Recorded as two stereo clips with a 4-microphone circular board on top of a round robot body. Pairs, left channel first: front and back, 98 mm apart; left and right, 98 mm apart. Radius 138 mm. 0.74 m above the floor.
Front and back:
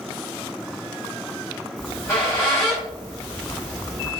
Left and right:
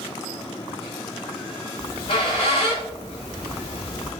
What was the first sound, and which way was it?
A squeak, 65° left.